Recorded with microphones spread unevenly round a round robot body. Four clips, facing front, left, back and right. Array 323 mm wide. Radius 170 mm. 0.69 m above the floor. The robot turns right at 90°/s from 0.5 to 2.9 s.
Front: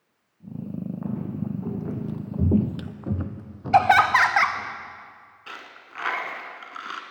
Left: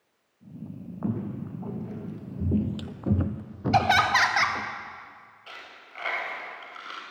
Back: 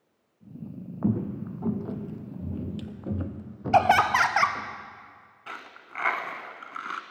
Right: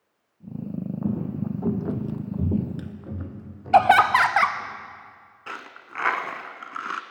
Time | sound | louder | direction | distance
1.0 | footsteps | right 2 dB, back 6 dB | 175° left | 1.7 m
3.7 | laughter | right 6 dB, front 3 dB | 105° right | 0.7 m
5.5 | a dropped coin | right 9 dB, back 1 dB | 110° right | 0.9 m